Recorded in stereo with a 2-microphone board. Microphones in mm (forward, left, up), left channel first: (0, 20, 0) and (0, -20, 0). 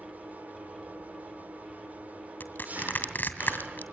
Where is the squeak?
I don't hear a squeak.